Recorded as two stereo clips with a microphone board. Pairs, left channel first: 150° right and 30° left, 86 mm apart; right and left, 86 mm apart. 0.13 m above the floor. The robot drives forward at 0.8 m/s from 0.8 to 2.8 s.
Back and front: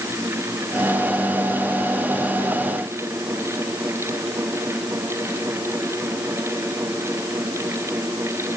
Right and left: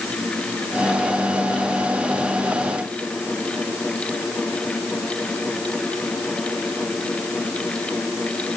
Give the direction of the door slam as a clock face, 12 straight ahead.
No door slam in this recording.